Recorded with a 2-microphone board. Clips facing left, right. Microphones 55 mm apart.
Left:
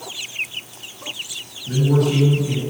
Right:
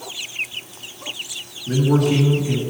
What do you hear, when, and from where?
1.7 s a man speaking: 20° right (ahead or behind), 2.5 m